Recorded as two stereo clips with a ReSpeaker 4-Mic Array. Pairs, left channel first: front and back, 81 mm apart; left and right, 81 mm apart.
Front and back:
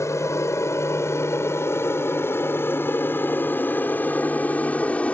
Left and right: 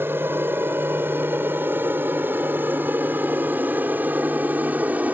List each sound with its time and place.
0.0 s an aircraft: 35° right; by 5.1 s 50° right